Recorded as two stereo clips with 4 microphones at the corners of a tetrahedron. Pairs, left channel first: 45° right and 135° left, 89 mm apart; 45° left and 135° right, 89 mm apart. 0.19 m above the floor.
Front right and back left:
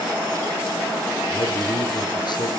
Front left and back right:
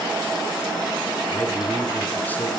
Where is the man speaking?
25° right, 3 m.